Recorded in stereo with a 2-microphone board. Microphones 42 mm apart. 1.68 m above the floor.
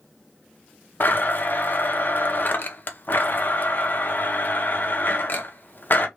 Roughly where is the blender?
Left.